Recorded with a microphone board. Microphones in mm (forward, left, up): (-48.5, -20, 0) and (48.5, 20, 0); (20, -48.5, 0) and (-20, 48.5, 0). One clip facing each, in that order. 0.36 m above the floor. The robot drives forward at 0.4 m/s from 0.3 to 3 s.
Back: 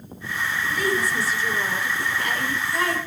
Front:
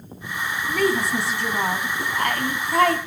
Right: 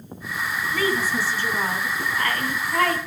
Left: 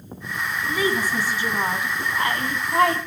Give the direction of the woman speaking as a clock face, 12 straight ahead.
11 o'clock.